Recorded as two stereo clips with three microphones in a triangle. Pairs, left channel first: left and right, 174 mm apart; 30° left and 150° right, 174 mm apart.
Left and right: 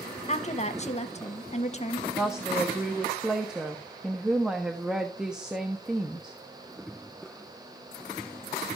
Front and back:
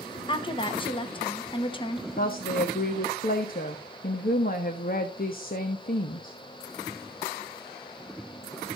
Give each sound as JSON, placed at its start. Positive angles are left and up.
{"t": 0.3, "sound": "a woman speaking", "azimuth_deg": 75, "distance_m": 1.0}
{"t": 2.2, "sound": "a woman speaking", "azimuth_deg": -5, "distance_m": 1.0}